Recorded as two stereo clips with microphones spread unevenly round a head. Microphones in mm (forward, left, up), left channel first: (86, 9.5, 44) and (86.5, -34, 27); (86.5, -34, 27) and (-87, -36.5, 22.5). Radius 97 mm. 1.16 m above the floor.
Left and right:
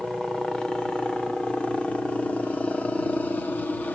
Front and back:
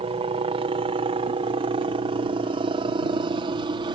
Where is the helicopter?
165° right; by 4.0 s 145° left.